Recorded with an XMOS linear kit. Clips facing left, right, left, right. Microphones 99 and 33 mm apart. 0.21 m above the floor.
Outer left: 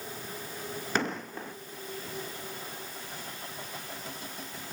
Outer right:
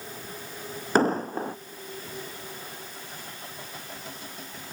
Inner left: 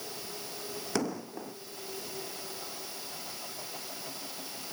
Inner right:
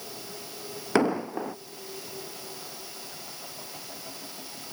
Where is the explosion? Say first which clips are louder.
Outer right 10 dB, inner right 10 dB; 40° right (ahead or behind).